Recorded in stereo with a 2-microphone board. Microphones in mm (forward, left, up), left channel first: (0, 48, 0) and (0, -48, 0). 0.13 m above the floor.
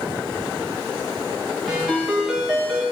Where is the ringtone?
Centre (ahead or behind), 9 m.